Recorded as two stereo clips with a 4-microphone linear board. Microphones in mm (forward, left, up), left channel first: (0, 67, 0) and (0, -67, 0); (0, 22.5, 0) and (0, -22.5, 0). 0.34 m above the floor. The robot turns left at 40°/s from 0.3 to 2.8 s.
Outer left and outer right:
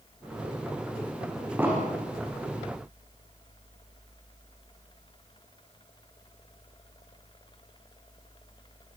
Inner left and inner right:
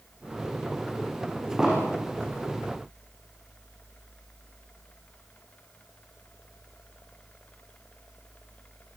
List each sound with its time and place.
1.6 s an explosion: 15° right (ahead or behind), 8.5 m; by 2.0 s 30° right (ahead or behind), 8.5 m